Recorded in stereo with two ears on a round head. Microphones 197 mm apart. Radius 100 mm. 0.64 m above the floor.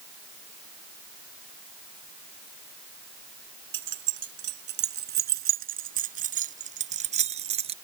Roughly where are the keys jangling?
Right.